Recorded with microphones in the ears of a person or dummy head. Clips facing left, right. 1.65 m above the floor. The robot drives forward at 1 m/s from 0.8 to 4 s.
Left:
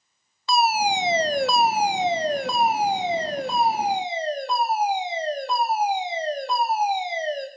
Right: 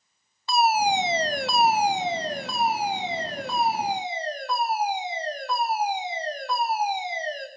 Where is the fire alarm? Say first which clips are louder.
Even; 65° left (ahead or behind), 1.5 m; by 7.5 s 25° left (ahead or behind), 3 m.